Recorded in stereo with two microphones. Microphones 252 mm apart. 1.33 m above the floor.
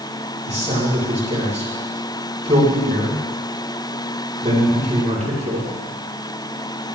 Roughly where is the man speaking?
Right.